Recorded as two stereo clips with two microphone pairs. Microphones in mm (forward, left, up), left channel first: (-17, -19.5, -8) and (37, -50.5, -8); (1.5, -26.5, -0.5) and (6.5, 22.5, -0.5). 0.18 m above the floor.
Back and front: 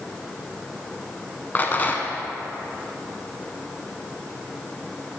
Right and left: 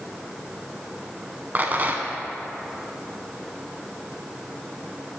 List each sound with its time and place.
1.6 s a rattle: 110° left, 0.5 m